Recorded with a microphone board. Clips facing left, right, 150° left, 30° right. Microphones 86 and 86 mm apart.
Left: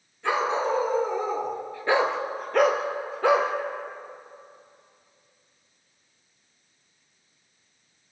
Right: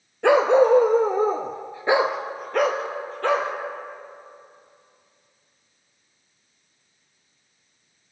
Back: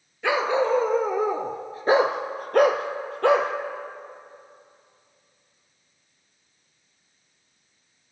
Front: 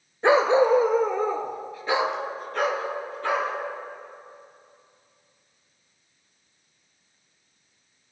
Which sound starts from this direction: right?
A dog barking, at 0.2 s.